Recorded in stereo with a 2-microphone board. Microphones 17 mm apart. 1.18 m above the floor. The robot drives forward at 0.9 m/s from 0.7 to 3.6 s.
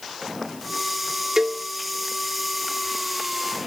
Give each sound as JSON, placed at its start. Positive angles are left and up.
{"t": 1.4, "sound": "a cowbell", "side_deg": -30, "distance_m": 0.5}